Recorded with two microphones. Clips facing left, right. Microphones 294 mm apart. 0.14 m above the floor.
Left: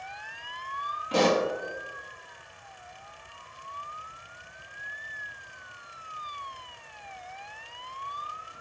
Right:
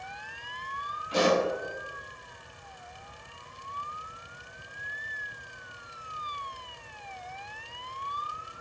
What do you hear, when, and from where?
1.1 s a pop: 80° left, 0.8 m